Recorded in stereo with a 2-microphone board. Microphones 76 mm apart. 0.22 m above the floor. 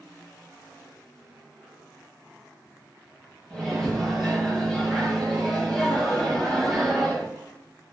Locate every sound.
3.5 s a microwave: 5° left (ahead or behind), 0.8 m